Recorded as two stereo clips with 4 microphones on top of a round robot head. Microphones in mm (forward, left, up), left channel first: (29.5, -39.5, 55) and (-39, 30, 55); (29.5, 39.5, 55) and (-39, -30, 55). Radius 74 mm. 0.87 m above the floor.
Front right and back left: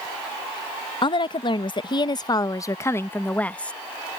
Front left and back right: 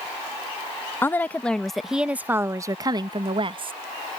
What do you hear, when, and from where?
1.0 s a woman speaking: 20° right; by 3.7 s 120° right